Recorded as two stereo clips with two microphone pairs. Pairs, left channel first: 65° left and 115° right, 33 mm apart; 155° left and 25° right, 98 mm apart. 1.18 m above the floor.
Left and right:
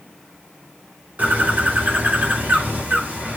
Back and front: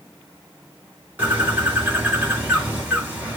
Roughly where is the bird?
Right.